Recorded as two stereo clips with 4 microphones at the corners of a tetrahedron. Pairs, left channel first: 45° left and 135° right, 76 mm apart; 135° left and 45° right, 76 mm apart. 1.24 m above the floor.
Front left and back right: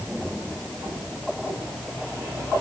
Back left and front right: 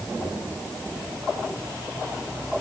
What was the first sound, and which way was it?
Only background noise.